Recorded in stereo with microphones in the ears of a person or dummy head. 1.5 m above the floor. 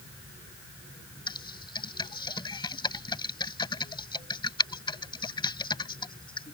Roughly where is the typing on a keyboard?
Left.